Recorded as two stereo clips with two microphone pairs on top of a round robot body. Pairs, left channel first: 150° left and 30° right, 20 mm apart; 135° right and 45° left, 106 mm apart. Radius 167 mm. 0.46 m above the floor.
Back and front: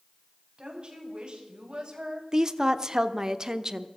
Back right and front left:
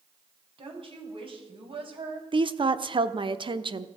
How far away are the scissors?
I don't hear scissors.